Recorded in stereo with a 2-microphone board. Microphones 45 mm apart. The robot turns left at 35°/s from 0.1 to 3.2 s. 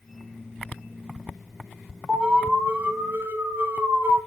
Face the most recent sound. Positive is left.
turn(degrees=-60)